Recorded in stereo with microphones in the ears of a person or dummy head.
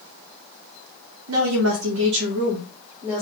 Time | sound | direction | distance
1.3 | a woman speaking | 85° right | 0.8 m